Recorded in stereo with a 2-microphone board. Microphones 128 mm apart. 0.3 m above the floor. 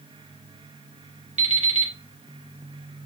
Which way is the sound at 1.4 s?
65° right (ahead or behind).